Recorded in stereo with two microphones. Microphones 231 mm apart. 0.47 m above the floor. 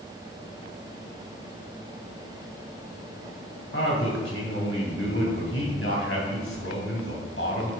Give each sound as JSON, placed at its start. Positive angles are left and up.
{"t": 3.7, "sound": "a man speaking", "side_deg": 70, "distance_m": 2.0}